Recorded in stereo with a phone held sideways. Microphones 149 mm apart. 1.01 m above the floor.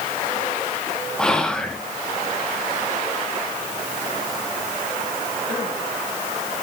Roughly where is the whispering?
Centre.